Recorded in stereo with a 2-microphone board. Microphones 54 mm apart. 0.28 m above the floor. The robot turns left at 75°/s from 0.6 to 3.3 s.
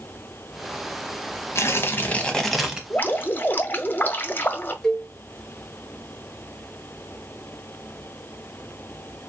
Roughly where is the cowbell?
Centre.